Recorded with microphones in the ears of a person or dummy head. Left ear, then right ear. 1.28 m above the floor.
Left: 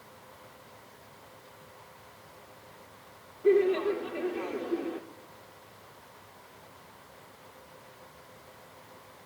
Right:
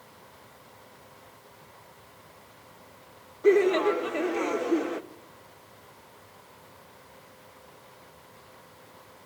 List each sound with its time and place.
3.4 s laughter: 60° right (ahead or behind), 1.6 m